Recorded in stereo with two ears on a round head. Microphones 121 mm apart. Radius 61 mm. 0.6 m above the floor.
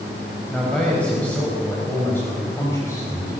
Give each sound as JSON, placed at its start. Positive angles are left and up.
{"t": 0.5, "sound": "a man speaking", "side_deg": 5, "distance_m": 4.5}